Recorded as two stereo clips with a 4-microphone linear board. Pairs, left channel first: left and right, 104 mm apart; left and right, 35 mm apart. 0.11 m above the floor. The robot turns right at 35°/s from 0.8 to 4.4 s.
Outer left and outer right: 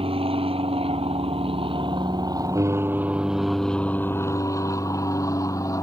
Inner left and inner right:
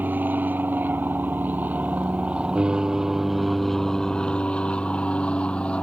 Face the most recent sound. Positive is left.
turn(degrees=30)  # may be behind; listen again after turning